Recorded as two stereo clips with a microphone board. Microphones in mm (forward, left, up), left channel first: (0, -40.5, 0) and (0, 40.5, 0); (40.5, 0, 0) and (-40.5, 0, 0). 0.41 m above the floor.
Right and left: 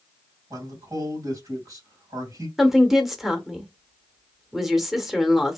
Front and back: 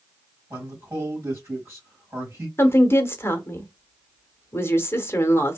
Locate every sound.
0.5 s a man speaking: 125° left, 2.5 m
2.6 s a woman speaking: 5° left, 0.9 m